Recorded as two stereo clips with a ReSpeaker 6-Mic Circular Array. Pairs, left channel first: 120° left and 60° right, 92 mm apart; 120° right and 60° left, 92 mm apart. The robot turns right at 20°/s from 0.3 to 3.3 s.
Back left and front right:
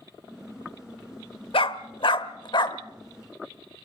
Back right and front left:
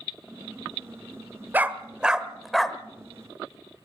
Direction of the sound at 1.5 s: 130° left.